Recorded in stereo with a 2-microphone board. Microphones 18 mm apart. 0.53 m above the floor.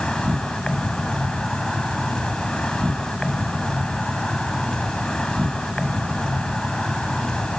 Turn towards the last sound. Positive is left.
turn(degrees=50)  # may be behind; listen again after turning